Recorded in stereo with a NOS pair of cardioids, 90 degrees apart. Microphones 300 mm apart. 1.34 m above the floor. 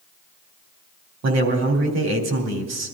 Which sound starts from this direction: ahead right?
A man speaking, at 1.2 s.